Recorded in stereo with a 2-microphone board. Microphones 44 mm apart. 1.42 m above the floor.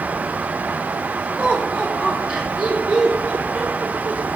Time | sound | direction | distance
1.4 | laughter | 30° right (ahead or behind) | 3 m